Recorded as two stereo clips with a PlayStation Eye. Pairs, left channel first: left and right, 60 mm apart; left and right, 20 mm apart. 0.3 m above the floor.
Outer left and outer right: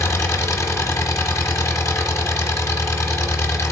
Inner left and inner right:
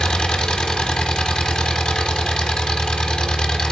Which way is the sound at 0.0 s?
60° left (ahead or behind).